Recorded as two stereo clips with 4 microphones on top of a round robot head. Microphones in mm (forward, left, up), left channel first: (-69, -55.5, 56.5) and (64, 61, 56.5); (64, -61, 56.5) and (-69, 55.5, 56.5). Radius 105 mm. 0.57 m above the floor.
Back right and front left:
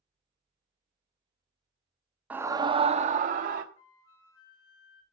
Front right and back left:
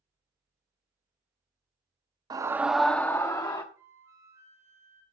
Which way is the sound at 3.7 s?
145° right.